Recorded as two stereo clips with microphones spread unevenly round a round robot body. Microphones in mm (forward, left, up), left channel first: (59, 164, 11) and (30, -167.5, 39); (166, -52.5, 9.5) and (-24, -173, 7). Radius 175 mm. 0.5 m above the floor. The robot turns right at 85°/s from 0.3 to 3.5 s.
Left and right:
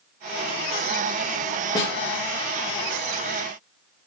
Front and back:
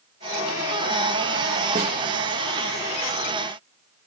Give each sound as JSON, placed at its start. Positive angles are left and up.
{"t": 1.8, "sound": "a snare drum", "azimuth_deg": 160, "distance_m": 1.6}